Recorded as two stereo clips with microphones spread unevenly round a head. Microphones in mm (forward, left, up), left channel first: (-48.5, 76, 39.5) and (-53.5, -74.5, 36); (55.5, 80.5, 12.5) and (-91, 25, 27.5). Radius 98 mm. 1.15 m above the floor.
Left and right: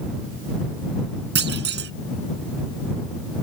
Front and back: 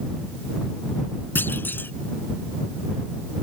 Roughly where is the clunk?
Ahead right.